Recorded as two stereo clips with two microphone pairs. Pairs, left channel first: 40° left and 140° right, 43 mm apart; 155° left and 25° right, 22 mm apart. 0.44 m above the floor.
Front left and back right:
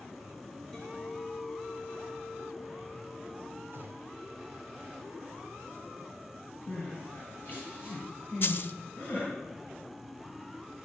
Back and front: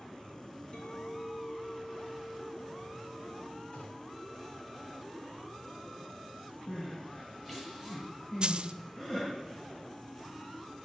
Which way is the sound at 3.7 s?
175° left.